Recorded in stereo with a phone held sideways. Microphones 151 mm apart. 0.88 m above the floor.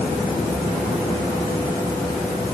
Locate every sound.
Only background noise.